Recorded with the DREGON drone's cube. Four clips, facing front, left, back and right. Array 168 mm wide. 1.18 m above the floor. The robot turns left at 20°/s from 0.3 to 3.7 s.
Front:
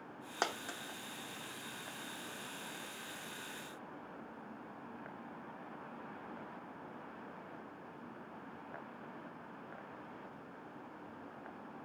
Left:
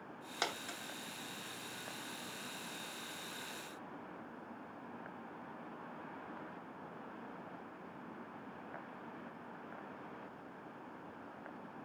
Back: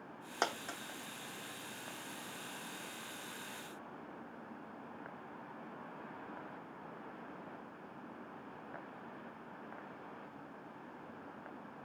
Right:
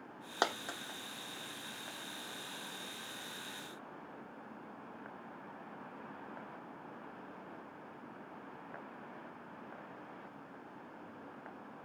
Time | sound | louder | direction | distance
0.4 | a dropped coin | right 6 dB, back 1 dB | 105° right | 0.8 m